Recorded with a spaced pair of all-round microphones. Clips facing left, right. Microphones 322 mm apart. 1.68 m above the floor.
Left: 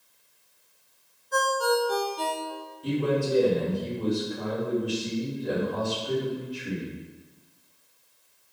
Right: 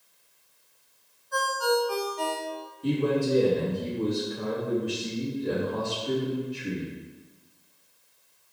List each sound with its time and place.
1.3 s a ringtone: 45° left (ahead or behind), 1.1 m
2.8 s a man speaking: 30° right (ahead or behind), 3 m